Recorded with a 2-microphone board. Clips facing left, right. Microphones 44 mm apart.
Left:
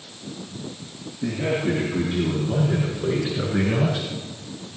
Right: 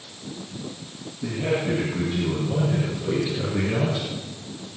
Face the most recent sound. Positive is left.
turn(degrees=50)  # may be behind; listen again after turning